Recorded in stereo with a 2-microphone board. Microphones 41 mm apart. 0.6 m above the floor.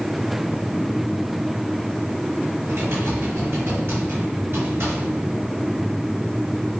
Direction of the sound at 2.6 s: 70° right (ahead or behind).